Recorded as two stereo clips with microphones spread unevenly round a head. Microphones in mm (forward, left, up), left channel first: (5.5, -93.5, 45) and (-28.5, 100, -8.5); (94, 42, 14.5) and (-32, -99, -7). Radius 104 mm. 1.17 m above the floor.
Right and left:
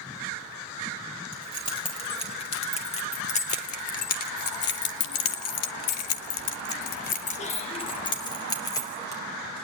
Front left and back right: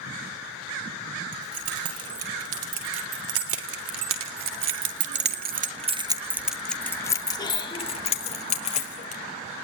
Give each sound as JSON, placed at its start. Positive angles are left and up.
{"t": 1.3, "sound": "keys jangling", "azimuth_deg": -145, "distance_m": 6.0}